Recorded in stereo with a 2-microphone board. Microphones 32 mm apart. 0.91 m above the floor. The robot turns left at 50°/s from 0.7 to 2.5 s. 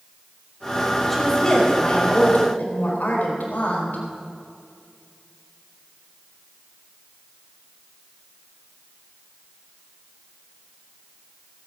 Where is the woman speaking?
175° left, 4 m; by 4.0 s 105° left, 4 m.